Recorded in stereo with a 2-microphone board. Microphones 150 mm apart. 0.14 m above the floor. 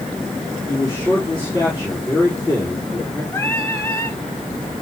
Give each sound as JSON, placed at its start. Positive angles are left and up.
{"t": 0.7, "sound": "a man speaking", "side_deg": 30, "distance_m": 5.5}
{"t": 3.3, "sound": "singing", "side_deg": 15, "distance_m": 1.5}